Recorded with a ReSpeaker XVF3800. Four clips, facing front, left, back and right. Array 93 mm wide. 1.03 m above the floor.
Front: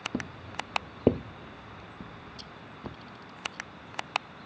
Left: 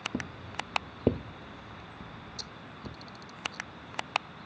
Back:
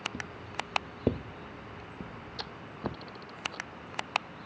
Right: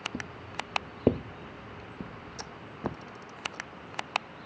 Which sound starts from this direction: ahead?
Footsteps, at 0.1 s.